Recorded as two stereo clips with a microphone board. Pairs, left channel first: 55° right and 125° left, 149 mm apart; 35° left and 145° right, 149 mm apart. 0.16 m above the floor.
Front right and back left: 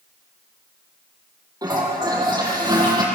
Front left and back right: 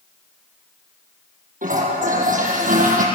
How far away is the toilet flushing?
About 6 m.